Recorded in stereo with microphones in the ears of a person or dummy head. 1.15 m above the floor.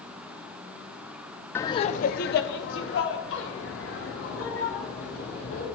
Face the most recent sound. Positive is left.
turn(degrees=80)